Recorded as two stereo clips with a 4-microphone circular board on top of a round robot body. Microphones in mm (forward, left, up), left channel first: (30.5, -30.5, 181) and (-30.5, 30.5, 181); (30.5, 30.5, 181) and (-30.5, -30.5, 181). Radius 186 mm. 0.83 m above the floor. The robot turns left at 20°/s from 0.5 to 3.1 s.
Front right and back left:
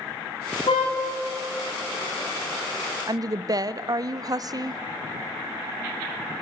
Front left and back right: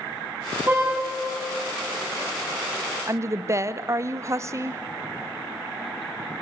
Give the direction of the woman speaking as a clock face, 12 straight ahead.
6 o'clock.